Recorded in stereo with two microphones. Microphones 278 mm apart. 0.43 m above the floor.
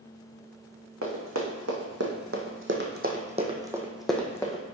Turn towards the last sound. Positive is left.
turn(degrees=15)  # may be behind; listen again after turning